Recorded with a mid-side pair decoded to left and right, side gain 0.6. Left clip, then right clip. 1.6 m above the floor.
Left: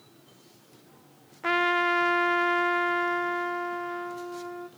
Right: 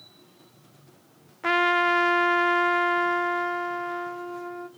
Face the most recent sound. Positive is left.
turn(degrees=-15)